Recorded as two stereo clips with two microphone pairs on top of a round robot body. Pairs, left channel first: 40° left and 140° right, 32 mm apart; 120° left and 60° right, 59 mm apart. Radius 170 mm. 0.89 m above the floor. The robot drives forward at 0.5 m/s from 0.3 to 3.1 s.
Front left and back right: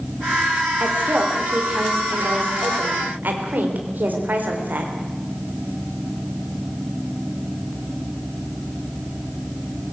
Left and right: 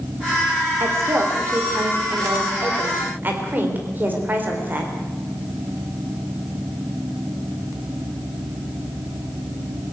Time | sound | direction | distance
0.8 | a woman speaking | 100° right | 3.5 m